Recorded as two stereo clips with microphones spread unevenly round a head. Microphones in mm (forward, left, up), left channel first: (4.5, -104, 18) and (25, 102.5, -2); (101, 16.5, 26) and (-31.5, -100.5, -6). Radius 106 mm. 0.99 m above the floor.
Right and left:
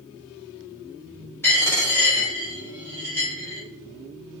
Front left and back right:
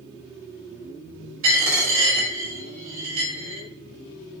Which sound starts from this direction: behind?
A dropped coin, at 1.4 s.